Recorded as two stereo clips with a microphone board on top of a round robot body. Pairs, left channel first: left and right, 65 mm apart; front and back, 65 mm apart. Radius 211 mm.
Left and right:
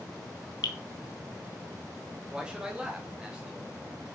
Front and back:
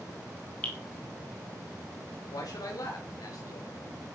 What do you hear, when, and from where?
0.6 s dripping: 70° left, 0.8 m
2.3 s a man speaking: 15° right, 2.5 m